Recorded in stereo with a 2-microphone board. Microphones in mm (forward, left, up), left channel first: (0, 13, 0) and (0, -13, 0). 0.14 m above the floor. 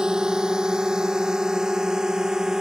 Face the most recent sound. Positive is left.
turn(degrees=-20)  # may be behind; listen again after turning